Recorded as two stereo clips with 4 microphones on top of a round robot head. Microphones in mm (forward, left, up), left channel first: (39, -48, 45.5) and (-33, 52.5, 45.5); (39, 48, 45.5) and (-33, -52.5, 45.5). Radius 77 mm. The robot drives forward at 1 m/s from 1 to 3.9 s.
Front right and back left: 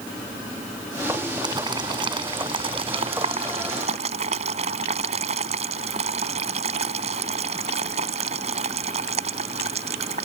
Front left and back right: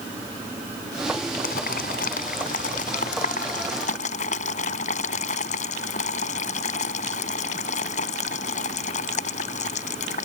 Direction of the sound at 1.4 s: 70° left.